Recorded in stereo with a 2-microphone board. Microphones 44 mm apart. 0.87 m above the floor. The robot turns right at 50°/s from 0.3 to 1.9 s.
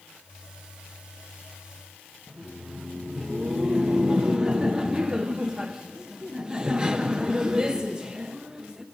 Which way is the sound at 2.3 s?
15° right (ahead or behind).